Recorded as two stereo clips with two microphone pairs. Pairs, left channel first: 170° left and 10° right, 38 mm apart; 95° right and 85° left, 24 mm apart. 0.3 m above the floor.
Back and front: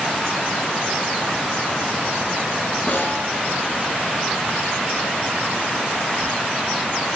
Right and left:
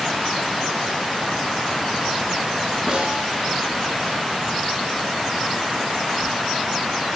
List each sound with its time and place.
2.9 s a snare drum: 145° left, 4 m